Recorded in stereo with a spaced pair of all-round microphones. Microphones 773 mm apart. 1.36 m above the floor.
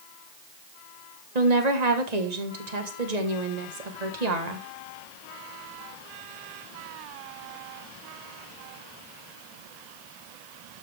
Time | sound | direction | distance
1.4 | a woman speaking | 55° right (ahead or behind) | 1.6 m